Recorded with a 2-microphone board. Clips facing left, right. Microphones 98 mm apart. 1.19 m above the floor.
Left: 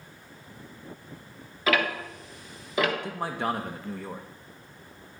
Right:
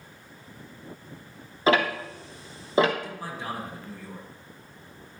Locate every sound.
1.7 s ticking: 30° right (ahead or behind), 0.9 m
3.0 s a man speaking: 60° left (ahead or behind), 0.9 m